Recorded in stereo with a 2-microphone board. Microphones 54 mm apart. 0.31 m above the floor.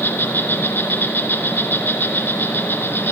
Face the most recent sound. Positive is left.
turn(degrees=40)  # may be behind; listen again after turning